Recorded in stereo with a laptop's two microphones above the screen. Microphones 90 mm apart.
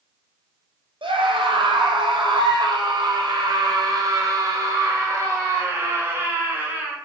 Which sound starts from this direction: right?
A scream, at 1.0 s.